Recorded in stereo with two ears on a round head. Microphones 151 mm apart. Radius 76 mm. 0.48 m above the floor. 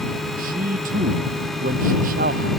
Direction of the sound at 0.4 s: 55° right (ahead or behind).